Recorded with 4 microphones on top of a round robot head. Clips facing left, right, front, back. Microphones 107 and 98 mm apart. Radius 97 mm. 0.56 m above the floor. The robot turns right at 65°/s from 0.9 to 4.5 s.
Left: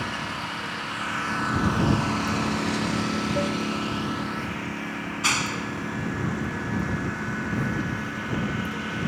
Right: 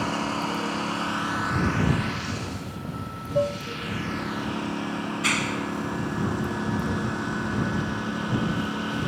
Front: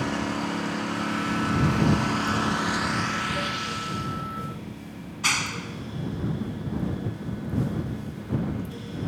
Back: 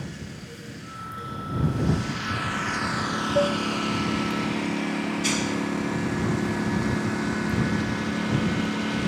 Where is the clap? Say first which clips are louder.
Left 1 dB, back 5 dB; 30° left.